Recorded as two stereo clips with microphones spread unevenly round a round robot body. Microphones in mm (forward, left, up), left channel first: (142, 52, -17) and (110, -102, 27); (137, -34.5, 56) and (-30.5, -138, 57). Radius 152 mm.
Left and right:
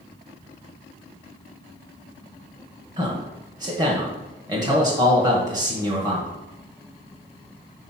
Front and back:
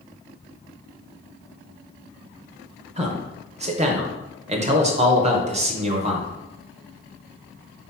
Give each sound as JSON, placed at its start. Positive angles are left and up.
{"t": 3.0, "sound": "a man speaking", "azimuth_deg": 180, "distance_m": 1.0}